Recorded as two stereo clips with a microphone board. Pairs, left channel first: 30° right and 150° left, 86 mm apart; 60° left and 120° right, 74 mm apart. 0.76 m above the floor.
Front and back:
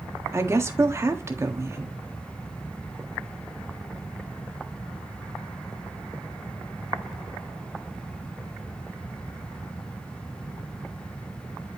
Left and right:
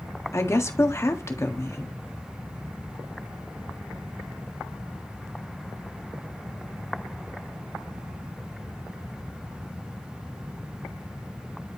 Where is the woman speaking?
100° left, 1.5 m.